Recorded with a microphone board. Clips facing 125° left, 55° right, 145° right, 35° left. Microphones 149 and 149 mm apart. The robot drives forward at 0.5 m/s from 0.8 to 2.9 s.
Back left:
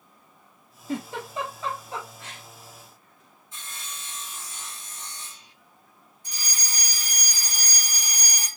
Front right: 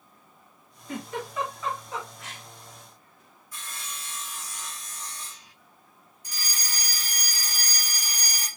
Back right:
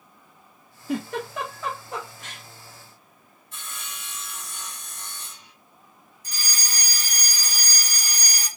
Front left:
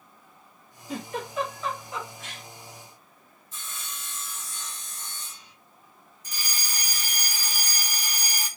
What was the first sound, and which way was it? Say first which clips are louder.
A giggle: back left 2 dB, back right 5 dB; 170° right.